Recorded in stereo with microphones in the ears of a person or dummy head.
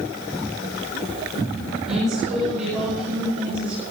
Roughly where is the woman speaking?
Centre.